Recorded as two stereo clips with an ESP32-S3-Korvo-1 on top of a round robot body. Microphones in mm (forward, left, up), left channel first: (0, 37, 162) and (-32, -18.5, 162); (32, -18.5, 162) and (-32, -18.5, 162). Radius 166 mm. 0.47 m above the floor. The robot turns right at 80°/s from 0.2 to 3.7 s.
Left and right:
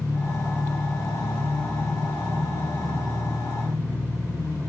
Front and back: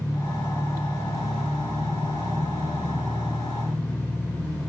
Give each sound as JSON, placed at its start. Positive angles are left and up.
{"t": 0.0, "sound": "an engine running", "azimuth_deg": 10, "distance_m": 2.5}